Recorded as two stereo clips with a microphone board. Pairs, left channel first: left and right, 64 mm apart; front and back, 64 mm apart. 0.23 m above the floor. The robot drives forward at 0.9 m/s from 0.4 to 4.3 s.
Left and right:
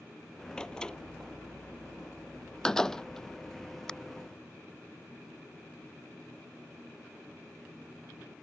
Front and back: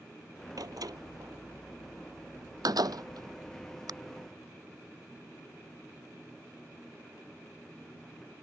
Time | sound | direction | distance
0.6 | a door slam | 165° left | ?